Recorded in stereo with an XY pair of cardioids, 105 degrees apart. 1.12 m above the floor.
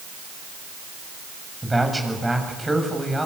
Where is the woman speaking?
10° right, 7 m.